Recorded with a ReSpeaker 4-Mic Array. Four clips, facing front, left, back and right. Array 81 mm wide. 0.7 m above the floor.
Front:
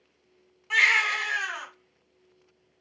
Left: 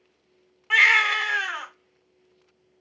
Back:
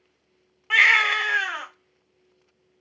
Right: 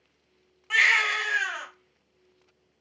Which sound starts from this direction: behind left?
A baby crying, at 0.7 s.